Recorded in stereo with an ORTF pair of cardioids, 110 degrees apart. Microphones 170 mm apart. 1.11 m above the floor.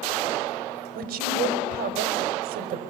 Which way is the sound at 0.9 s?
60° right.